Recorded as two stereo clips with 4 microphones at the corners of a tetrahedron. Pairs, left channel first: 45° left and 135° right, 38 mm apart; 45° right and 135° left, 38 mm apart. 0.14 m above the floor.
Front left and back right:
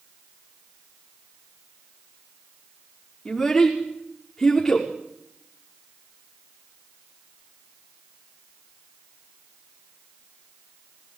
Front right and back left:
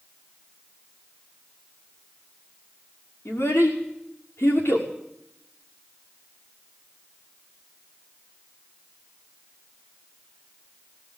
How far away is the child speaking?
About 5.5 m.